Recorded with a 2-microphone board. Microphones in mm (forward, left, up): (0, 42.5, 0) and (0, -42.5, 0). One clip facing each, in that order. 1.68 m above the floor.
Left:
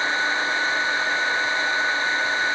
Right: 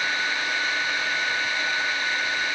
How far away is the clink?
I don't hear a clink.